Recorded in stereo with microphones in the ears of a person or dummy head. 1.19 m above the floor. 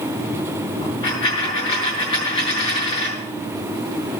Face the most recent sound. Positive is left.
turn(degrees=25)  # may be behind; listen again after turning